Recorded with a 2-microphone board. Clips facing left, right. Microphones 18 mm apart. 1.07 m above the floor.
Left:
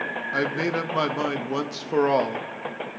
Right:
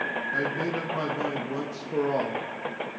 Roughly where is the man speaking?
Left.